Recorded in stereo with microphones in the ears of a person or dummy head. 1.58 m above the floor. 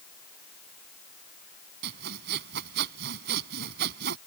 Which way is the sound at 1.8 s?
65° right (ahead or behind).